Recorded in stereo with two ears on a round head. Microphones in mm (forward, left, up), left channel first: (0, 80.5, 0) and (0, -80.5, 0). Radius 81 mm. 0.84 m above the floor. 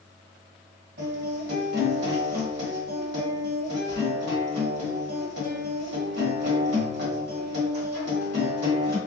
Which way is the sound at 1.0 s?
60° right (ahead or behind).